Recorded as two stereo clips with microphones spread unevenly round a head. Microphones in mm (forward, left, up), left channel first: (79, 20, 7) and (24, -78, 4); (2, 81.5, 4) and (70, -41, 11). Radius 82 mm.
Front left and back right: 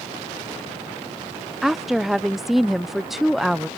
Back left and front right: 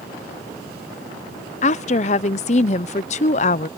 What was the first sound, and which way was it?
A woman speaking, 155° left.